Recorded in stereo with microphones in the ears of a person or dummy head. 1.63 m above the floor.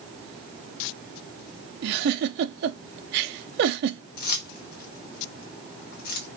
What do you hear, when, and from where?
1.8 s a giggle: 55° right (ahead or behind), 0.5 m
4.2 s keys jangling: 50° left (ahead or behind), 0.9 m